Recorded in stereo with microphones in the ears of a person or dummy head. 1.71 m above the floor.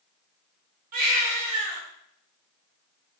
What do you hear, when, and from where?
0.9 s a baby crying: 45° right (ahead or behind), 1.0 m